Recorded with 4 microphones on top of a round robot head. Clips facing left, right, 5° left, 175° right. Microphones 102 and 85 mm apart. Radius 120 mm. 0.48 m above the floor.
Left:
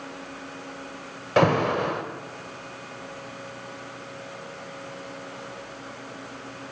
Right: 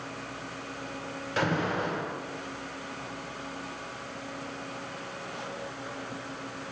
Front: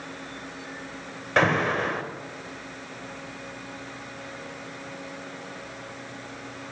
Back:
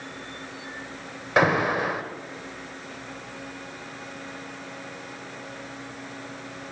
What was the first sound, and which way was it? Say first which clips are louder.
An alarm: left 8 dB, back 1 dB; 105° left.